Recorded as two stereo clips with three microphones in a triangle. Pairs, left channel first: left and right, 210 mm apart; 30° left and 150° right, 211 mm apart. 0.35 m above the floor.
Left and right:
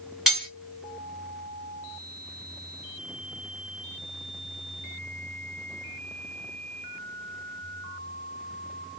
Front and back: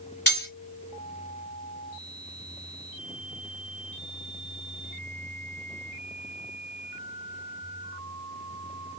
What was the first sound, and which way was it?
Cutlery clinking, straight ahead.